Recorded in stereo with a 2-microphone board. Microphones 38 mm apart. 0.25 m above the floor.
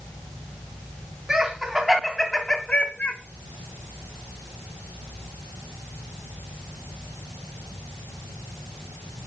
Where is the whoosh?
No whoosh in this recording.